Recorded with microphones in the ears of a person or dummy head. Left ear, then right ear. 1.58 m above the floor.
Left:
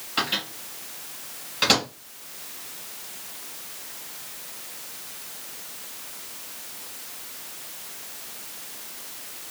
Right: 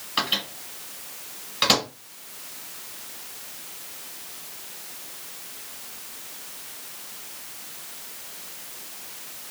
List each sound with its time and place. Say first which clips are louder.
0.2 s a microwave: right 1 dB; 15° right (ahead or behind), 1.1 m